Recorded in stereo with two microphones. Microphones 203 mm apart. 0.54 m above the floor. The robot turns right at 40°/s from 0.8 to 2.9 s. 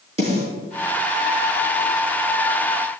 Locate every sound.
0.2 s a snare drum: 30° right (ahead or behind), 4.5 m